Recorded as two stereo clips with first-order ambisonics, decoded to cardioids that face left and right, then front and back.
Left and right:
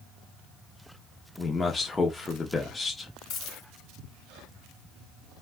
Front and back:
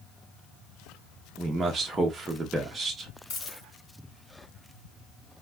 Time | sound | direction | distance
1.4 | a man speaking | 140° left | 0.6 m
3.3 | a dropped coin | 40° left | 2.5 m